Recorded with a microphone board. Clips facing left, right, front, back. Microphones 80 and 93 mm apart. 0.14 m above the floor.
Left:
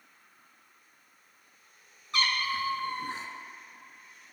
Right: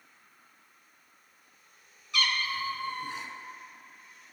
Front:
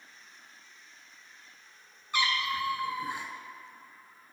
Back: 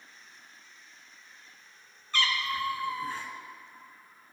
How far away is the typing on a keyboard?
No typing on a keyboard in this recording.